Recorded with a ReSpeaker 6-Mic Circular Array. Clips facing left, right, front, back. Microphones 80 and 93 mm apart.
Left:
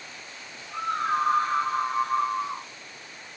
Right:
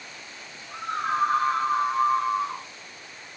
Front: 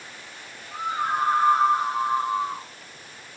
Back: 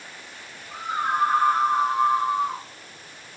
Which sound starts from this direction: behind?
A scream, at 0.7 s.